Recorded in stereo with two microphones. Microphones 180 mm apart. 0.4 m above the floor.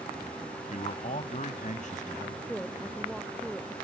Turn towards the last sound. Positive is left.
turn(degrees=5)  # may be behind; listen again after turning